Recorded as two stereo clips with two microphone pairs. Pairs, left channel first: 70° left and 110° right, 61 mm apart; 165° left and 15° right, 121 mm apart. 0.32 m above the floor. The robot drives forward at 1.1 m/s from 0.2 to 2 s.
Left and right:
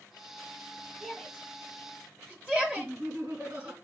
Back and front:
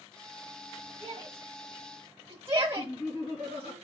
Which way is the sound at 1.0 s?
20° right.